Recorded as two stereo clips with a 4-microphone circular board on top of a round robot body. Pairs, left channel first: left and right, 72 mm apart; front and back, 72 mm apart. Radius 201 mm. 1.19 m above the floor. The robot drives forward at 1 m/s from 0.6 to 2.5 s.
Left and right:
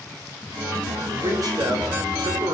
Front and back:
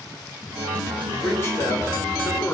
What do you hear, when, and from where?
1.1 s a man speaking: 55° right, 7 m; by 2.5 s 65° right, 6.5 m